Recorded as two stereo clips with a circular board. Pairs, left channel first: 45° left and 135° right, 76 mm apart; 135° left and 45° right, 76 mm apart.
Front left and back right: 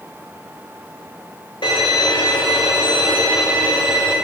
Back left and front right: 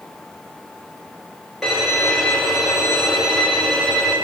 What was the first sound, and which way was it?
A violin, 50° left.